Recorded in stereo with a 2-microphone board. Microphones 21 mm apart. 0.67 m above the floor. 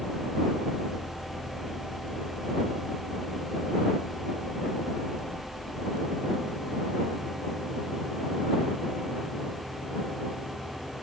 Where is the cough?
No cough in this recording.